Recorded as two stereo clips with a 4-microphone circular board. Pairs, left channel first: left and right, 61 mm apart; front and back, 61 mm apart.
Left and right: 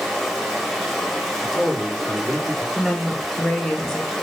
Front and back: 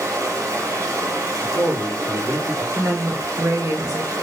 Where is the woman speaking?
165° left, 0.9 m.